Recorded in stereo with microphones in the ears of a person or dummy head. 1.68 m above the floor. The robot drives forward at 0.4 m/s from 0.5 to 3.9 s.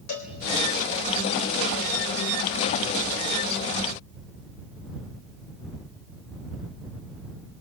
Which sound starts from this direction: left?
A cowbell, at 0.1 s.